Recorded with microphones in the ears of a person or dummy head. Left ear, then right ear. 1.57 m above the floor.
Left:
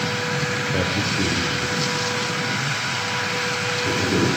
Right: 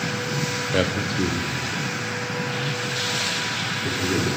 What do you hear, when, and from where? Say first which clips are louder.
0.7 s a man speaking: left 1 dB; 35° right (ahead or behind), 0.6 m; by 4.3 s 60° right (ahead or behind), 4.5 m